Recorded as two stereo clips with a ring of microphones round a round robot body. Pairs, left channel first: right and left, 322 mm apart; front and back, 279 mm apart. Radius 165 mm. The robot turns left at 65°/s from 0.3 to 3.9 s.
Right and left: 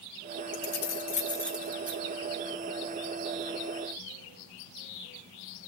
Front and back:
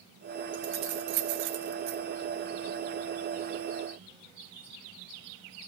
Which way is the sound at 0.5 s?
115° right.